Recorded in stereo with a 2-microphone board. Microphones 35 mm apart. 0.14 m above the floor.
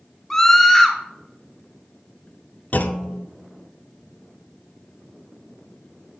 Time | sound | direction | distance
0.3 | a scream | 10° left (ahead or behind) | 1.0 m
2.7 | a clunk | 55° left (ahead or behind) | 0.5 m